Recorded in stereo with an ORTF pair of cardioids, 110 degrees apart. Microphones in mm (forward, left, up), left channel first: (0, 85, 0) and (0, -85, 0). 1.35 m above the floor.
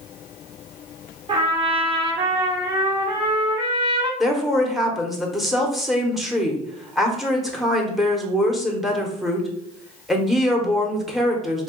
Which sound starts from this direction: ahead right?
A trumpet, at 1.3 s.